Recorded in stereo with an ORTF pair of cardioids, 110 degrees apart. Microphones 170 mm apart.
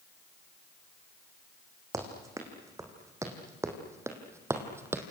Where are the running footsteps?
20° right, 6 m; by 5.0 s 15° right, 3.5 m.